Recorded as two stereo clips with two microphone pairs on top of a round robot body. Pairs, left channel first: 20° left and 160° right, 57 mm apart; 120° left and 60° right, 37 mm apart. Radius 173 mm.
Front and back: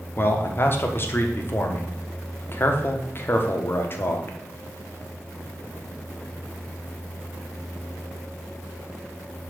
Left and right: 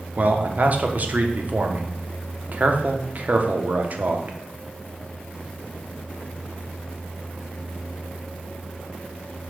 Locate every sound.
0.2 s a man speaking: 25° right, 1.4 m